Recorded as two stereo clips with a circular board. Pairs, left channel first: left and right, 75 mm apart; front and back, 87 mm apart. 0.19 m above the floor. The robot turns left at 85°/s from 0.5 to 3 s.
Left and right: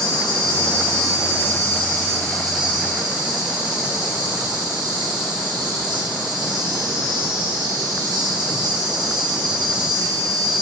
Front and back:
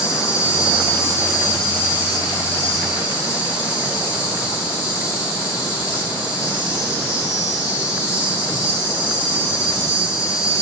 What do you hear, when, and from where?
0.0 s an insect: 100° left, 5 m; by 10.6 s 110° right, 5 m